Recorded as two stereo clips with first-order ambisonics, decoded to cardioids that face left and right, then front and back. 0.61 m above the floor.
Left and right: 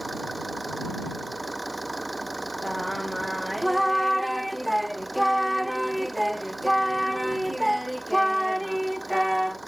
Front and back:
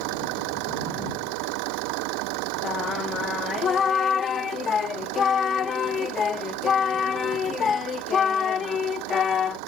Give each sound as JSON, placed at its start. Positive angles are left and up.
{"t": 0.0, "sound": "an engine running", "azimuth_deg": -175}
{"t": 2.6, "sound": "singing", "azimuth_deg": -5}